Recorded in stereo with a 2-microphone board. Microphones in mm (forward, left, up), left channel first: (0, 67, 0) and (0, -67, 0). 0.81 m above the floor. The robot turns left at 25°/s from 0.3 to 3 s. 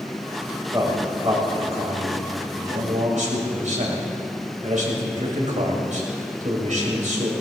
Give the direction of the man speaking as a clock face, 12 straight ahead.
1 o'clock.